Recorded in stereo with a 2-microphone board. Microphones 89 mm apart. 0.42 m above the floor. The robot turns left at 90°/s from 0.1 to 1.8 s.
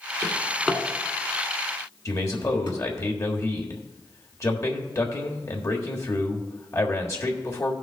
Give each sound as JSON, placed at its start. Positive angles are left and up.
{"t": 0.2, "sound": "a drawer", "side_deg": -40, "distance_m": 1.8}
{"t": 2.0, "sound": "a man speaking", "side_deg": 40, "distance_m": 1.4}